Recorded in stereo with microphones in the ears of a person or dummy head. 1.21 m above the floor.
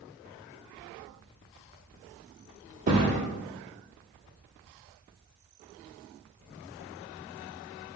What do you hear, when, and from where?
2.9 s a thud: 40° right (ahead or behind), 1.3 m